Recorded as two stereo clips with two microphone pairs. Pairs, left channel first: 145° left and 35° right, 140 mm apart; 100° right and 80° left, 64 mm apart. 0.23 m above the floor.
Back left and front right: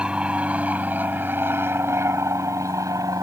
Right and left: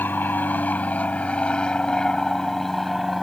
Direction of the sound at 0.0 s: 110° right.